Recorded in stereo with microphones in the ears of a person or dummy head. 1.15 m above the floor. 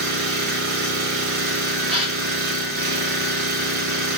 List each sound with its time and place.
0.0 s an engine running: 40° right (ahead or behind), 1.0 m
1.9 s a gasp: 35° right (ahead or behind), 2.5 m